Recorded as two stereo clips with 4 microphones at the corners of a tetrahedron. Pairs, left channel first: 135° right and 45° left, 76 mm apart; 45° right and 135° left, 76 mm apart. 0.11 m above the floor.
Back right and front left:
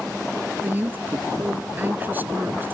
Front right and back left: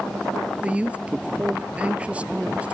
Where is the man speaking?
80° left.